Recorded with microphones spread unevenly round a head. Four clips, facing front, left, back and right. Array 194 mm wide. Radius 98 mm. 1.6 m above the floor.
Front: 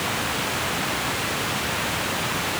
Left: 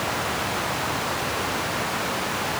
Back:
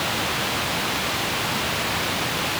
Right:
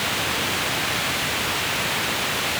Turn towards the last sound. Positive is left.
No sound to turn to.